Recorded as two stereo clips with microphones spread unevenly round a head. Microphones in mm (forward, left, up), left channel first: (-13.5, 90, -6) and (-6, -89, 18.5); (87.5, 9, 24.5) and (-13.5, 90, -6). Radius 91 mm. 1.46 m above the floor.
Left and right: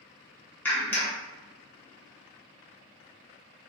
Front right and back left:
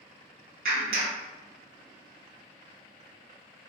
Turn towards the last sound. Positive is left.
turn(degrees=175)